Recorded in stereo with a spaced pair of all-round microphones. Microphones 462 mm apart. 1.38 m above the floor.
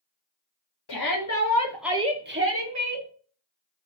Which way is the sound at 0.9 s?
55° left (ahead or behind).